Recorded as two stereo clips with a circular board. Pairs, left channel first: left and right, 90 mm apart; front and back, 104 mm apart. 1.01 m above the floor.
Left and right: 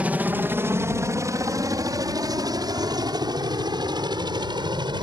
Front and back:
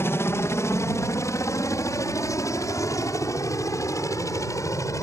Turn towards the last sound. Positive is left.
turn(degrees=-60)